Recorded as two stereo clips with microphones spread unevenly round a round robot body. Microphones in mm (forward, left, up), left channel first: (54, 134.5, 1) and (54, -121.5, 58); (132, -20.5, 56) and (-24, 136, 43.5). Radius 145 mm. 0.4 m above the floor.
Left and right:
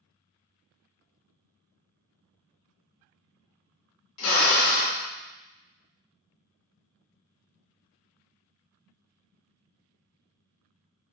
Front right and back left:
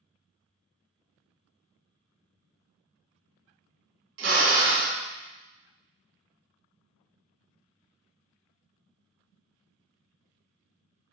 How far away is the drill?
About 0.9 m.